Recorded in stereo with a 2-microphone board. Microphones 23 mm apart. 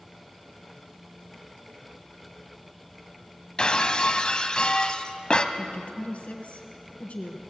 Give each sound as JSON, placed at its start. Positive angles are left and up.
{"t": 3.6, "sound": "breaking glass", "side_deg": 40, "distance_m": 0.9}
{"t": 5.5, "sound": "a woman speaking", "side_deg": 65, "distance_m": 3.0}